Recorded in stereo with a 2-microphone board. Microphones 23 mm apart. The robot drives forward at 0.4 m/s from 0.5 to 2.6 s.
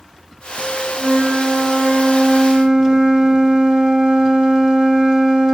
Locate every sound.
1.0 s a flute: 50° right (ahead or behind), 5.5 m; by 5.5 s 55° right (ahead or behind), 5.5 m